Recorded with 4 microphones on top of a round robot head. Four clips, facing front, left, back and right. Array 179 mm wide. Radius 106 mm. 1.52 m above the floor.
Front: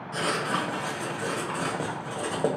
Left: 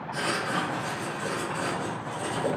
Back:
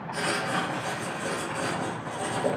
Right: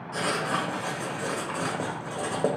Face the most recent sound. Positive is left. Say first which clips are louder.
# right 1 dB, front 1 dB
turn(degrees=-45)